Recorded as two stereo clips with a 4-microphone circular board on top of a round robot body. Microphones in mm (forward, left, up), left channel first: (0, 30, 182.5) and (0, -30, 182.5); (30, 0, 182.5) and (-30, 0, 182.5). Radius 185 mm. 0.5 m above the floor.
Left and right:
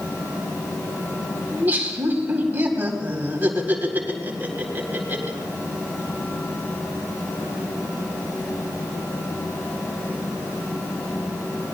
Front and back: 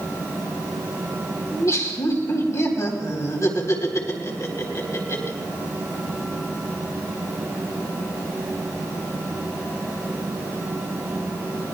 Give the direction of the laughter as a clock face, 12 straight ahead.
1 o'clock.